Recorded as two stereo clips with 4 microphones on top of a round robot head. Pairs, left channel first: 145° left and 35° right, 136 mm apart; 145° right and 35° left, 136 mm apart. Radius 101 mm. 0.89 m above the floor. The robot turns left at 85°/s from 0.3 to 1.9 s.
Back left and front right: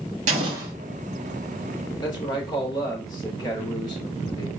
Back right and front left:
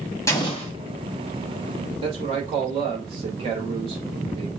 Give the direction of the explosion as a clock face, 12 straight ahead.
3 o'clock.